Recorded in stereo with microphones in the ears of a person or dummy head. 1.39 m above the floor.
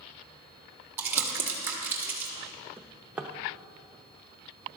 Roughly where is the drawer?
Centre.